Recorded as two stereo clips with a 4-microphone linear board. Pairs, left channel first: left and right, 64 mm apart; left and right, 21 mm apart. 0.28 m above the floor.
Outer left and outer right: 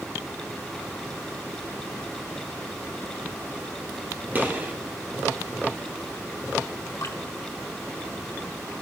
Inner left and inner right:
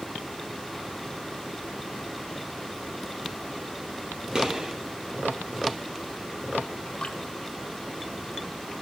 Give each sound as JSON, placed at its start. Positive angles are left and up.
{"t": 4.3, "sound": "a gunshot", "side_deg": -30, "distance_m": 1.9}
{"t": 7.0, "sound": "dripping", "side_deg": 55, "distance_m": 1.7}